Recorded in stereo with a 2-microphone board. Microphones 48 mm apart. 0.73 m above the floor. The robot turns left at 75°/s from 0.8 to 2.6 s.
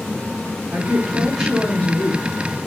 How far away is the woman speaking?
About 1.3 m.